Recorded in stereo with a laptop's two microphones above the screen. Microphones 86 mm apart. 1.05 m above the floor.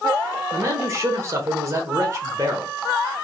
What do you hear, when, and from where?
0.5 s a man speaking: 35° right (ahead or behind), 0.9 m